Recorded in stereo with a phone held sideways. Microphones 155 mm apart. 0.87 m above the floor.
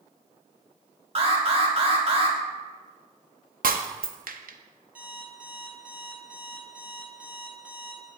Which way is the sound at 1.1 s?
40° right (ahead or behind).